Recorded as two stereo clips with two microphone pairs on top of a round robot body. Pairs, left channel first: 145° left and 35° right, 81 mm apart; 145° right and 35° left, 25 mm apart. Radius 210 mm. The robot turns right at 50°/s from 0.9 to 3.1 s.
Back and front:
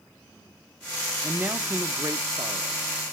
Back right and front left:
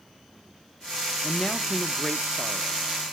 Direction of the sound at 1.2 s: 95° right.